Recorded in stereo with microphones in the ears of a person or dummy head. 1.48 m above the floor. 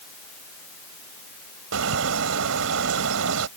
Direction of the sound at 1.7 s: 80° right.